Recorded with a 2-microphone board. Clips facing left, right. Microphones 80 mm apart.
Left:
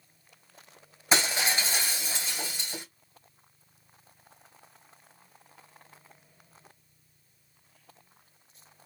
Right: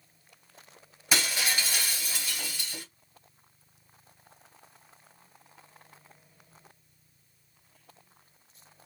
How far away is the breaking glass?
About 2.5 m.